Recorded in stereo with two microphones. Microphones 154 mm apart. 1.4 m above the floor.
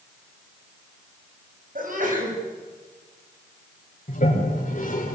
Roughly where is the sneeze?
Right.